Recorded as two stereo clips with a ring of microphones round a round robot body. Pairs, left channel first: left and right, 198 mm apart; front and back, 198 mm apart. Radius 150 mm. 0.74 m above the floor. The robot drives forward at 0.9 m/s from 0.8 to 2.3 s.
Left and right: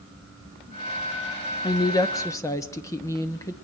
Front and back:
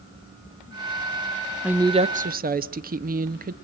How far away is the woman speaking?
About 0.7 m.